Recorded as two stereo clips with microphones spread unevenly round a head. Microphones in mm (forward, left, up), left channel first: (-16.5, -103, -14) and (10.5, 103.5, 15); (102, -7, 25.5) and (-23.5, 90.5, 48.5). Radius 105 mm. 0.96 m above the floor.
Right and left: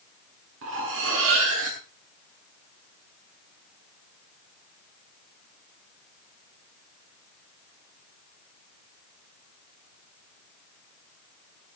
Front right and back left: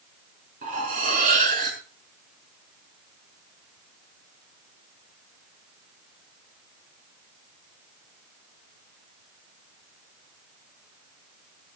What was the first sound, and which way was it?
Cutlery clinking, 110° left.